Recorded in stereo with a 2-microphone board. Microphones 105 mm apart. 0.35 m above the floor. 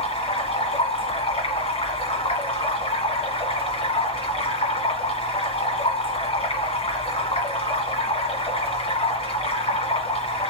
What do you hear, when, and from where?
0.0 s running water: 70° left (ahead or behind), 1.8 m